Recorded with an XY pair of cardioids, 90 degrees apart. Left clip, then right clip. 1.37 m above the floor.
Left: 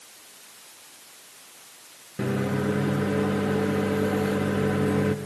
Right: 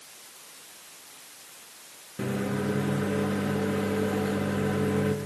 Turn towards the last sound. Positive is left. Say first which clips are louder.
# left 3 dB
turn(degrees=30)